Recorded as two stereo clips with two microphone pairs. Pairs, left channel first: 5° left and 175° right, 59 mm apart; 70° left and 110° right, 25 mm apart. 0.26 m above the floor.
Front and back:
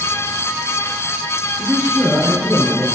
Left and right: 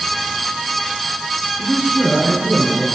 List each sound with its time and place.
1.6 s a man speaking: 155° right, 3 m